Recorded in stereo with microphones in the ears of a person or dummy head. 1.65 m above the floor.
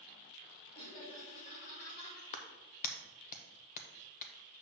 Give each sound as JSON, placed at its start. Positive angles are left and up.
{"t": 0.7, "sound": "laughter", "side_deg": 35, "distance_m": 4.0}
{"t": 2.3, "sound": "a clap", "side_deg": 45, "distance_m": 0.8}